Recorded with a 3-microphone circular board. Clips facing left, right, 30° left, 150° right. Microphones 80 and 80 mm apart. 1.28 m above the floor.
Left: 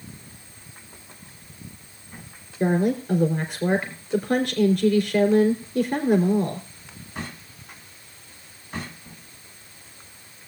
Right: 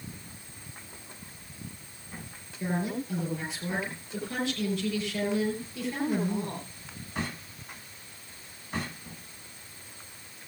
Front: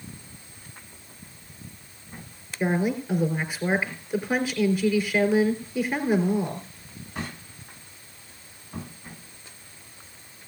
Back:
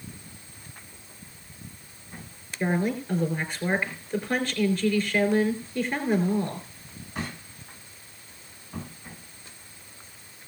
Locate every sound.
2.6 s a woman speaking: 115° left, 4 m